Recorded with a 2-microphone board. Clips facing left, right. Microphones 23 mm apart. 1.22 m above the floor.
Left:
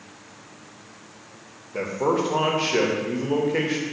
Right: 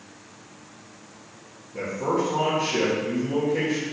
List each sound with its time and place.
1.7 s a man speaking: 70° left (ahead or behind), 0.7 m